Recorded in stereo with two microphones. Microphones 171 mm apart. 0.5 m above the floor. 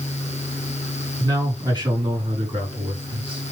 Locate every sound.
1.2 s a man speaking: 20° right (ahead or behind), 6 m; by 3.4 s 35° right (ahead or behind), 6 m